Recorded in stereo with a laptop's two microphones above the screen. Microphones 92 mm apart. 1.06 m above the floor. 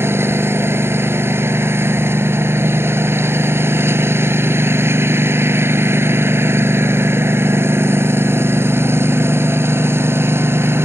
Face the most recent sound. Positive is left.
turn(degrees=-25)  # may be behind; listen again after turning